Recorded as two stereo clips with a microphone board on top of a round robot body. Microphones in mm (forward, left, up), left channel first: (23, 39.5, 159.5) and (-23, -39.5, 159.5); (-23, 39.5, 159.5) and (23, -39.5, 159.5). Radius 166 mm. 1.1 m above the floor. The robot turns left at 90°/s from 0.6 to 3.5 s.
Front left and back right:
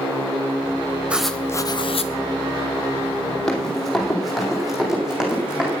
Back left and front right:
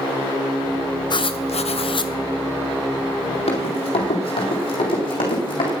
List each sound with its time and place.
1.1 s writing: 165° left, 0.8 m; by 2.1 s 70° left, 0.8 m
3.5 s running footsteps: 145° left, 2.5 m; by 5.7 s 160° left, 4.5 m